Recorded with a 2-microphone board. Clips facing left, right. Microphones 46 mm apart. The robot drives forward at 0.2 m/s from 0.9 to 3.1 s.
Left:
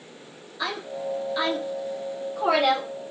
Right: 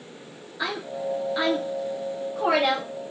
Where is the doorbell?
No doorbell in this recording.